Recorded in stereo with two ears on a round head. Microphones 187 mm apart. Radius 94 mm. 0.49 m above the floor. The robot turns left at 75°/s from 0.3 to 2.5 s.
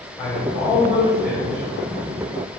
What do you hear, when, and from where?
0.2 s a man speaking: 15° left, 2.5 m; by 1.6 s 85° right, 2.5 m